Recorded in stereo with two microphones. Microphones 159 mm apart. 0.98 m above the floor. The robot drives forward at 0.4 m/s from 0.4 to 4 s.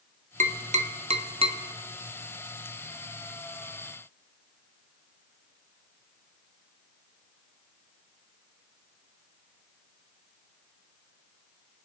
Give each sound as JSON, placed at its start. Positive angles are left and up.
{"t": 0.4, "sound": "tapping", "side_deg": -50, "distance_m": 0.7}